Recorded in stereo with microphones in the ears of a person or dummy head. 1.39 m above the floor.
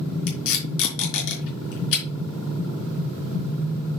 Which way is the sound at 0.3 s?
75° left (ahead or behind).